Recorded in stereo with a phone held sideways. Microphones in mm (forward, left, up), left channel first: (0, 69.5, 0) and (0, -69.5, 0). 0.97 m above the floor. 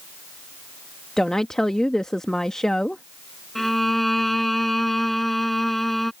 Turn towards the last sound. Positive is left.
turn(degrees=0)  # may be behind; listen again after turning